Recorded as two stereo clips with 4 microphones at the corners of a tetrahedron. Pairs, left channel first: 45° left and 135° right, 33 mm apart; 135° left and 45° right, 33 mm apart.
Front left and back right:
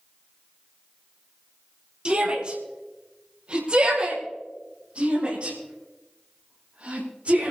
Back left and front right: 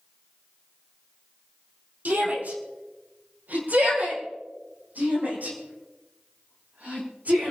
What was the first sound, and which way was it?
A shout, 75° right.